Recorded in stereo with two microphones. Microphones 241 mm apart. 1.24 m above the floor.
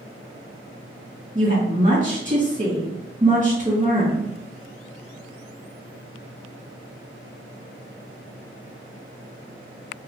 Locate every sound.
1.4 s a woman speaking: 20° right (ahead or behind), 1.7 m